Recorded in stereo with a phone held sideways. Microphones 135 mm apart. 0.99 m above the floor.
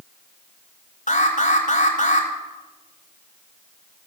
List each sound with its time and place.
1.1 s an alarm: 70° left (ahead or behind), 4 m